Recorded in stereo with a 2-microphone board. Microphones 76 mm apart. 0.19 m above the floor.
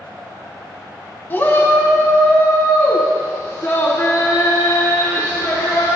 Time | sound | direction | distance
1.3 | a shout | 30° left (ahead or behind) | 1.3 m